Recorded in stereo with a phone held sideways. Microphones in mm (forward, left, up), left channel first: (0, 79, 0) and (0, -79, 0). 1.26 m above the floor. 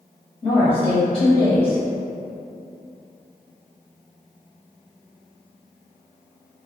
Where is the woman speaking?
40° left (ahead or behind), 1.3 m.